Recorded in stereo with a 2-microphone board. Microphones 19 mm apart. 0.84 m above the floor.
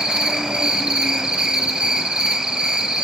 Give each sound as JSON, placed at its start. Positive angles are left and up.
{"t": 0.0, "sound": "an insect", "side_deg": -50, "distance_m": 2.5}